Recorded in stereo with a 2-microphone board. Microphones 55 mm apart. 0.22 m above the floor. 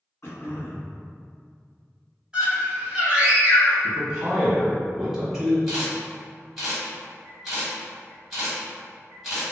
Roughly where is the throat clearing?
Left.